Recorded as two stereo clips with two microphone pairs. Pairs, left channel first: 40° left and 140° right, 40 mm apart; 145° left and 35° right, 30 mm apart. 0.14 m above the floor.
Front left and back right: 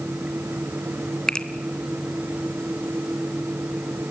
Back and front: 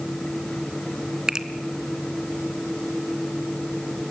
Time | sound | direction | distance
1.3 | a finger snap | 10° right | 1.2 m